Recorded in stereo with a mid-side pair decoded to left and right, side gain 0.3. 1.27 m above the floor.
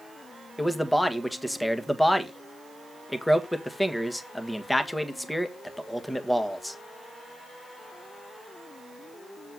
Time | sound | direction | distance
0.6 | a man speaking | 5° left | 1.6 m